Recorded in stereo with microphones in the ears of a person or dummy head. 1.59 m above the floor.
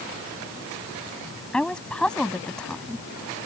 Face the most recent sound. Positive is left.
turn(degrees=5)  # may be behind; listen again after turning